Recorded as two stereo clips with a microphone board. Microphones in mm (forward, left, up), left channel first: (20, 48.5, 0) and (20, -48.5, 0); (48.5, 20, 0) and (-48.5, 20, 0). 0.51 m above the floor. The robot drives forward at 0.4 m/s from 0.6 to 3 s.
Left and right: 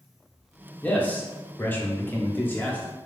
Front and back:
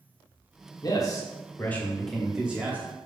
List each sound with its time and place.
0.8 s a man speaking: 25° left, 0.9 m; by 2.9 s 140° left, 0.7 m